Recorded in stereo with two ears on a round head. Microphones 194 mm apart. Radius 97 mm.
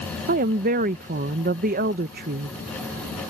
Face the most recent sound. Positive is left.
turn(degrees=-40)  # may be behind; listen again after turning